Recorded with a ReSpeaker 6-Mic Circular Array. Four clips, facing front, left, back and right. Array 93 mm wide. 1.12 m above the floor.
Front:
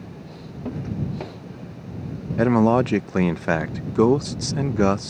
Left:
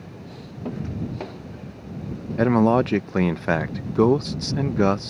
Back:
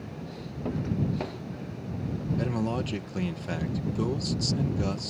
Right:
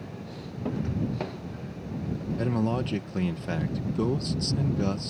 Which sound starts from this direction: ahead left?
A man speaking, at 2.4 s.